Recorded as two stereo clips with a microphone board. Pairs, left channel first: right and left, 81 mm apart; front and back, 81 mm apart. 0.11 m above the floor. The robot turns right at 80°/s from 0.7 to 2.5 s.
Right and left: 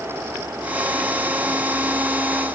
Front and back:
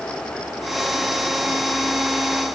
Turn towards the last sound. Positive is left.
No sound to turn to.